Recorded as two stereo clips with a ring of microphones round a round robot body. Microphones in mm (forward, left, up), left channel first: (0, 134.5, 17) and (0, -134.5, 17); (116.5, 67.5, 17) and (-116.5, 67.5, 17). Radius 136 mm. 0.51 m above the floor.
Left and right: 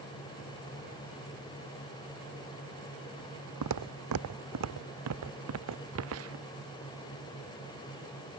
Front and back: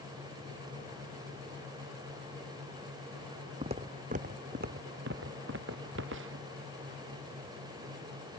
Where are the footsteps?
110° right; by 6.5 s 130° right.